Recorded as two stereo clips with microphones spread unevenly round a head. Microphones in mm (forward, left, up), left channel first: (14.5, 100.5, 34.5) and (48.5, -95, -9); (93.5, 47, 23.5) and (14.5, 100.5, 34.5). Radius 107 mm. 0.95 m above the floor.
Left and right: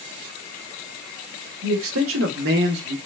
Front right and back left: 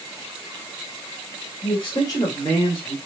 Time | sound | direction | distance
1.6 | a man speaking | 85° right | 1.1 m